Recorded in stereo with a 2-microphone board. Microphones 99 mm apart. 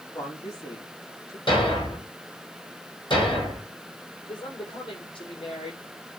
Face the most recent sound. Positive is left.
turn(degrees=55)  # may be behind; listen again after turning